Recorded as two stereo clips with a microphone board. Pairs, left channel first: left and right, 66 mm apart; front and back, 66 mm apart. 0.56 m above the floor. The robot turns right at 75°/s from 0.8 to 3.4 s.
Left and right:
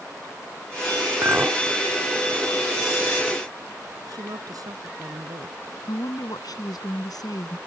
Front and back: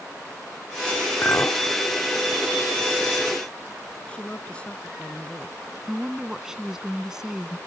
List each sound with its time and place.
1.2 s a clink: 55° right; by 1.6 s 25° right
4.1 s a woman speaking: 70° right
5.9 s a woman speaking: 100° left